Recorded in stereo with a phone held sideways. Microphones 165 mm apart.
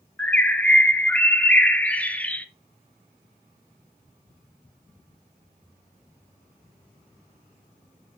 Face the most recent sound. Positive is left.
turn(degrees=10)  # may be behind; listen again after turning